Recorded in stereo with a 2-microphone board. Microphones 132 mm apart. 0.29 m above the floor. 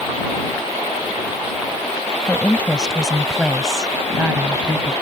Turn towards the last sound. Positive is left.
turn(degrees=-15)  # may be behind; listen again after turning